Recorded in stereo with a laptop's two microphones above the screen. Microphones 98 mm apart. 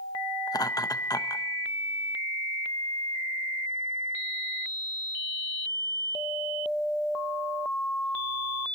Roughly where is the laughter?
Left.